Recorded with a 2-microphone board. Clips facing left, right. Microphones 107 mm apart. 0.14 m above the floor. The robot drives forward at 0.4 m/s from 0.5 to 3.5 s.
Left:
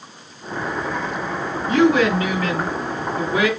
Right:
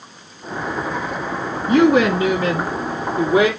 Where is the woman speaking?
20° right (ahead or behind), 1.3 m.